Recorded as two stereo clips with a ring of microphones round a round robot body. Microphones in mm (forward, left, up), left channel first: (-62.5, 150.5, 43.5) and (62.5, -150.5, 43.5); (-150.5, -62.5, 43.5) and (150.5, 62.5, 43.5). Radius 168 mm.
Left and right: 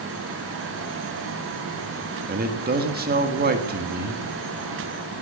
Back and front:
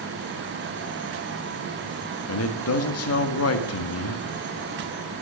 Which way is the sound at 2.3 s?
125° right.